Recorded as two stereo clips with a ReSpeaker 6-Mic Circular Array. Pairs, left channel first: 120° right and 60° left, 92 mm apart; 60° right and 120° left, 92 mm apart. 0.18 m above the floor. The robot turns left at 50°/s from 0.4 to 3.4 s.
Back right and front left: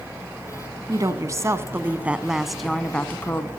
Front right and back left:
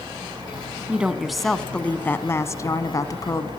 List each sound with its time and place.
0.9 s a woman speaking: 55° left, 1.3 m; by 3.5 s 70° right, 1.3 m